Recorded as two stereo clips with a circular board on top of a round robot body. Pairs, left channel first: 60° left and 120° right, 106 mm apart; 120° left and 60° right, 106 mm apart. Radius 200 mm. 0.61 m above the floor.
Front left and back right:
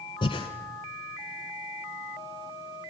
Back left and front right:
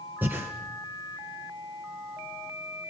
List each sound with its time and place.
0.2 s breathing: 15° left, 1.6 m